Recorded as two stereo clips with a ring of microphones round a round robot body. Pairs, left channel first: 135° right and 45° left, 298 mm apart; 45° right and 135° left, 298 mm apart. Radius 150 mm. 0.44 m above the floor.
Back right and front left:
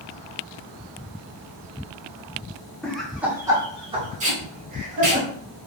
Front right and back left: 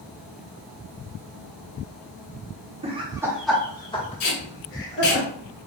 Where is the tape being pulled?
20° right, 1.4 m.